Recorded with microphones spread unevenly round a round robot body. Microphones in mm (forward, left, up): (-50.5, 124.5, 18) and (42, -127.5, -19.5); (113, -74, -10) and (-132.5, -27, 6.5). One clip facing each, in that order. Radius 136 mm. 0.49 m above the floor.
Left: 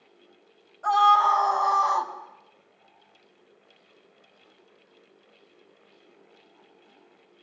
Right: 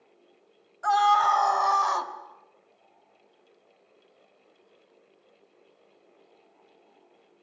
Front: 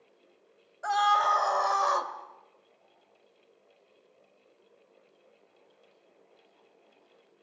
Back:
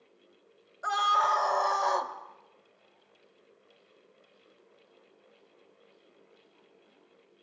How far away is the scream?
About 3.5 m.